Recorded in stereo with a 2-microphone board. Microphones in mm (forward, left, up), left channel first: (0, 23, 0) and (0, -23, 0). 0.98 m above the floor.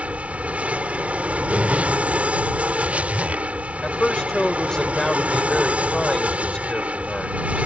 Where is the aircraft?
30° right (ahead or behind).